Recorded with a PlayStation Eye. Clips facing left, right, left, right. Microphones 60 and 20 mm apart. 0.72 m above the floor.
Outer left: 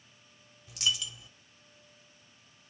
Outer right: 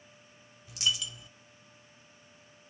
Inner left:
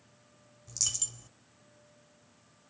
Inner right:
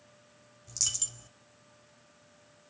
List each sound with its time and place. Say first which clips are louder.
0.7 s a dropped coin: even, inner right 1 dB; centre (ahead or behind), 0.5 m